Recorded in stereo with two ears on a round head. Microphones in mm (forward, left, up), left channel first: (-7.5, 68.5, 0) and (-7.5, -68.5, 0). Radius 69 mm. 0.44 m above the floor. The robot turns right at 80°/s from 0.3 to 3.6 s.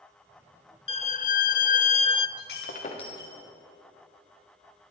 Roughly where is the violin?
Ahead left.